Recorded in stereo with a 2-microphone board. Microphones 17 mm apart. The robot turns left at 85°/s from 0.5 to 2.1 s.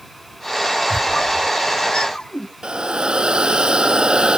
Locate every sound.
0.9 s a squeak: 20° left (ahead or behind); by 2.5 s 55° left (ahead or behind)
2.6 s a hiss: 65° right (ahead or behind)